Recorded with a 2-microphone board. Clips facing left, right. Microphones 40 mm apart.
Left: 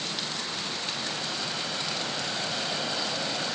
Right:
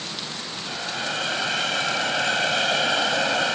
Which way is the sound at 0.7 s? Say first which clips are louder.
Right 5 dB; 80° right.